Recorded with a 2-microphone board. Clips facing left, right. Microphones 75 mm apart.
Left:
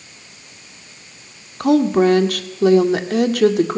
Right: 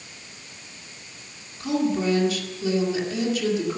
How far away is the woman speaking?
About 2 m.